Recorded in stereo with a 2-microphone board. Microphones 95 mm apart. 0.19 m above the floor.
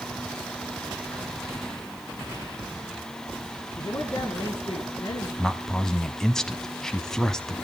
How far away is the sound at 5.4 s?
About 1.1 m.